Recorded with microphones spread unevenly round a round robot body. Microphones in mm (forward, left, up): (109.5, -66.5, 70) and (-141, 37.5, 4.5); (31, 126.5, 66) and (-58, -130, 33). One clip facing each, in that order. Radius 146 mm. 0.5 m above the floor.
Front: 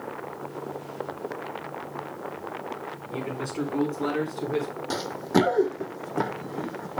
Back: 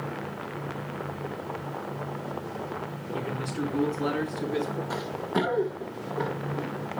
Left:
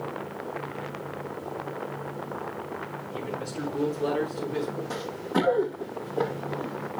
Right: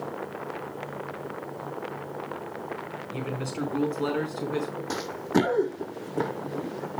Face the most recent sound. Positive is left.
turn(degrees=-50)